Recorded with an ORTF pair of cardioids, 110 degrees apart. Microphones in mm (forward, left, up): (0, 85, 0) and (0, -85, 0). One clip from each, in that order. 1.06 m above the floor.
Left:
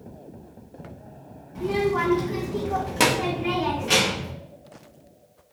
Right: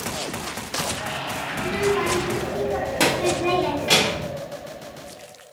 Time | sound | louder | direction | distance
1.6 | a child speaking | even | 45° left | 1.3 m